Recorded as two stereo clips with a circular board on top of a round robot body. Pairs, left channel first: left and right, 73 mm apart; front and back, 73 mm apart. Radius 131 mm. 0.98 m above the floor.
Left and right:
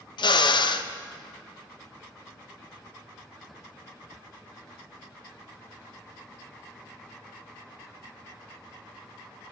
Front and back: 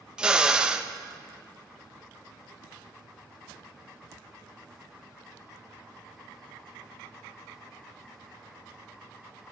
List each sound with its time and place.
0.2 s a drill: 100° left, 0.7 m